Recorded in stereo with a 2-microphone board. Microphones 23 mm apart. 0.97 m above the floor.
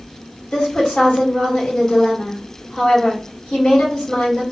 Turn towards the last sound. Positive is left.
turn(degrees=70)  # may be behind; listen again after turning